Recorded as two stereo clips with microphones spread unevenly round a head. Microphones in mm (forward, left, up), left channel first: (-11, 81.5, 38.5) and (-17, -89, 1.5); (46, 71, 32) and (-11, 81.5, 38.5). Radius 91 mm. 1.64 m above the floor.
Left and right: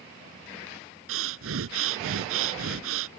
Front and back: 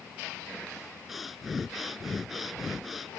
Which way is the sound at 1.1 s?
105° right.